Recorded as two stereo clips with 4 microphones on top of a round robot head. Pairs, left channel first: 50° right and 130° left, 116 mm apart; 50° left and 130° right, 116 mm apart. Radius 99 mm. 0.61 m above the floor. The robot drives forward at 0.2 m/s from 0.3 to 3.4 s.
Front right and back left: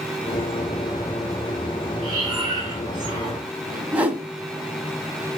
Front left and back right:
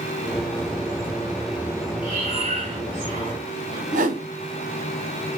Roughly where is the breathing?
Behind.